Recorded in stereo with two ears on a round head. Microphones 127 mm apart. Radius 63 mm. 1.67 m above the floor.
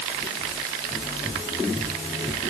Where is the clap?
I don't hear a clap.